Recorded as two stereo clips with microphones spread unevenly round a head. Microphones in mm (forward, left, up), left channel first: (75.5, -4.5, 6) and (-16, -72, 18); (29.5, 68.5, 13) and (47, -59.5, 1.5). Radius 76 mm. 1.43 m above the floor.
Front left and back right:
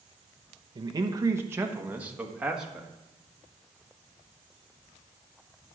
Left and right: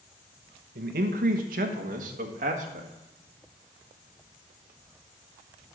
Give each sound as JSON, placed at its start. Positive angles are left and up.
{"t": 0.8, "sound": "a man speaking", "azimuth_deg": -95, "distance_m": 1.0}